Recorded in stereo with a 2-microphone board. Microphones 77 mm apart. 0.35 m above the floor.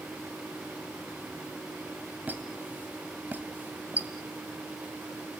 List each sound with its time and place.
2.3 s a squeak: 25° right (ahead or behind), 1.6 m